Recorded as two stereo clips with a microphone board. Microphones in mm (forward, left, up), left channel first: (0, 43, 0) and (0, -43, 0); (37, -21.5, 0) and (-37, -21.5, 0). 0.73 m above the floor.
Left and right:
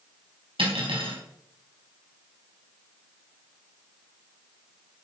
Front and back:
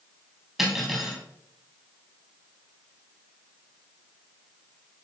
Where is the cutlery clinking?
95° right, 3.5 m.